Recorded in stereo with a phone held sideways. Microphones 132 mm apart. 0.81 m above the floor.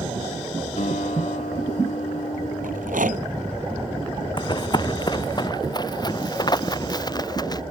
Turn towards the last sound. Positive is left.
turn(degrees=30)  # may be behind; listen again after turning